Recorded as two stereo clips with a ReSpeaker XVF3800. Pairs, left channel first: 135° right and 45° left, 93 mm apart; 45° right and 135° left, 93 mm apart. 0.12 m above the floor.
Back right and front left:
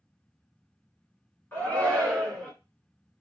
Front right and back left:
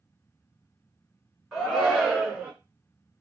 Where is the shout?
145° right, 1.7 m; by 2.5 s 160° left, 1.6 m.